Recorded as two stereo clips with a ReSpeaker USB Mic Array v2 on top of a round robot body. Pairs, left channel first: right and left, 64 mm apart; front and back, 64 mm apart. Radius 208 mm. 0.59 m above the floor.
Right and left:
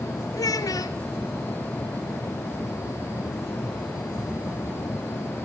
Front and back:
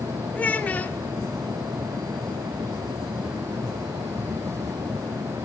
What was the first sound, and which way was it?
A child speaking, 70° right.